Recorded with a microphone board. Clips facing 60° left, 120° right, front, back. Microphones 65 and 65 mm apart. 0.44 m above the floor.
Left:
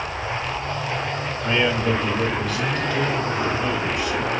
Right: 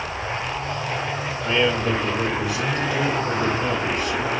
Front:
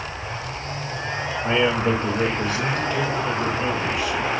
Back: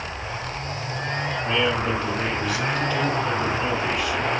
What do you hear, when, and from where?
1.4 s a man speaking: 20° right, 1.3 m; by 4.3 s 80° right, 2 m